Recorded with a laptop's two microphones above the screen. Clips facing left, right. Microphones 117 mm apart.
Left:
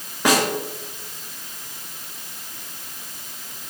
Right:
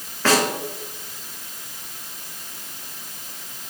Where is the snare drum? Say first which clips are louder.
Even; 15° left (ahead or behind), 2.5 m.